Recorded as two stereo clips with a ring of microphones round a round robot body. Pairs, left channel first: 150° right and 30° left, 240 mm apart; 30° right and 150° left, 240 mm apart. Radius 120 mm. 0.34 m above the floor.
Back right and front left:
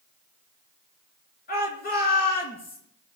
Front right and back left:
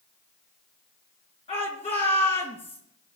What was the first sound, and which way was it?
A shout, 100° right.